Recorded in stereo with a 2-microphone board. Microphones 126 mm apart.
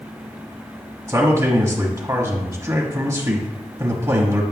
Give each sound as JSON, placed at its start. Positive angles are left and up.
{"t": 1.1, "sound": "a man speaking", "side_deg": -25, "distance_m": 1.1}